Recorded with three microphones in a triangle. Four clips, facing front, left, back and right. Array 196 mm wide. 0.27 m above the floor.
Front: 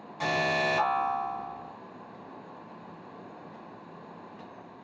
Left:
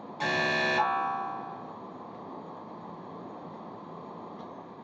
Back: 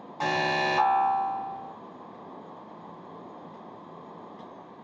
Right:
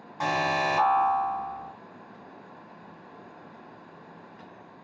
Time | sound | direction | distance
0.2 | an alarm | 125° right | 3 m